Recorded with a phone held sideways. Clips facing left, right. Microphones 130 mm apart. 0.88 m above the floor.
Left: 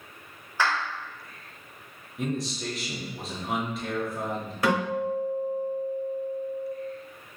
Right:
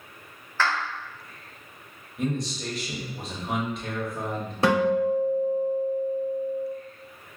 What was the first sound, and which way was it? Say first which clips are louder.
A clap: even; 15° left (ahead or behind).